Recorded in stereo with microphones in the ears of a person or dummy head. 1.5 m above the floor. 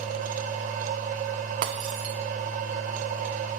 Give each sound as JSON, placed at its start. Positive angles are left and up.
{"t": 0.0, "sound": "a machine running", "side_deg": -40, "distance_m": 1.0}
{"t": 1.6, "sound": "breaking glass", "side_deg": -35, "distance_m": 0.9}